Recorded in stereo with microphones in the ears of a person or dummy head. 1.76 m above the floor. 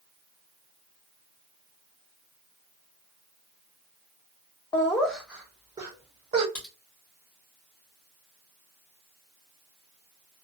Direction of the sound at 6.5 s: 10° left (ahead or behind).